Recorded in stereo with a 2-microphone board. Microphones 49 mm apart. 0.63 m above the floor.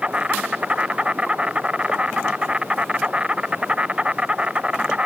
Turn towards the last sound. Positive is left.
turn(degrees=-20)  # may be behind; listen again after turning